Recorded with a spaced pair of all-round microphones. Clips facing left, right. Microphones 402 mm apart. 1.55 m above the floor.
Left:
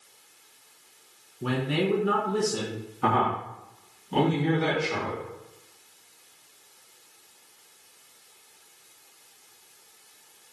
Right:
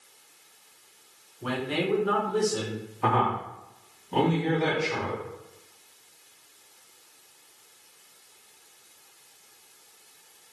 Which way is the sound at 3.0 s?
30° left (ahead or behind).